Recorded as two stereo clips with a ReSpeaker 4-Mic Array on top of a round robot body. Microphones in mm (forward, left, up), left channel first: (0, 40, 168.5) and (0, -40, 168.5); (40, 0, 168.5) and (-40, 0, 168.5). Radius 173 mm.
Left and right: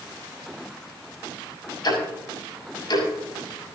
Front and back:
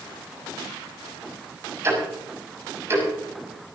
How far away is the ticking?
About 6.5 m.